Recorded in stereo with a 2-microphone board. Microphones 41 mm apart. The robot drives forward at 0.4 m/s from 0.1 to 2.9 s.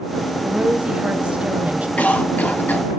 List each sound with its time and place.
0.4 s a woman speaking: 25° right (ahead or behind), 1.7 m; by 1.9 s 35° right (ahead or behind), 1.3 m
2.0 s a cough: 40° left (ahead or behind), 2 m; by 2.9 s 45° left (ahead or behind), 1.9 m